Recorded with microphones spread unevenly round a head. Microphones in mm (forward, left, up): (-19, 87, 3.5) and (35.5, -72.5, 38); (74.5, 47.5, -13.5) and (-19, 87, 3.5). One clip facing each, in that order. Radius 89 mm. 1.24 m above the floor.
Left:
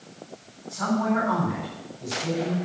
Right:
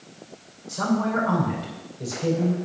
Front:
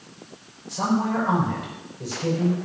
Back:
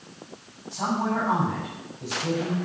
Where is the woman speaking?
55° right, 6 m.